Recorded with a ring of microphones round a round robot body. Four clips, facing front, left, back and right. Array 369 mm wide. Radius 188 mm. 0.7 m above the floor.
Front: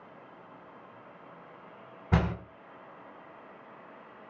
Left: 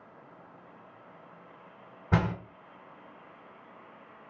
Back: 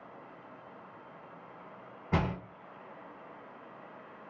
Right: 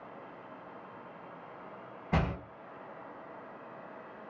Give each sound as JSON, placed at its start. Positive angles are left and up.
{"t": 2.1, "sound": "a door slam", "azimuth_deg": 65, "distance_m": 2.0}